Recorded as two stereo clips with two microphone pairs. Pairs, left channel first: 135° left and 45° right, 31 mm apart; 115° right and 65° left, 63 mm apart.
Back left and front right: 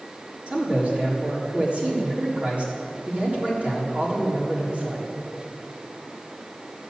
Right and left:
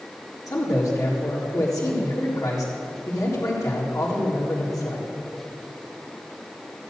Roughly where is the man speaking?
Right.